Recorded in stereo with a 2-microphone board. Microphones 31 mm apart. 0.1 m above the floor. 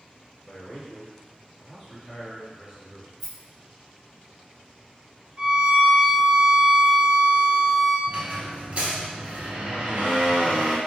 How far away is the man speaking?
About 1.8 m.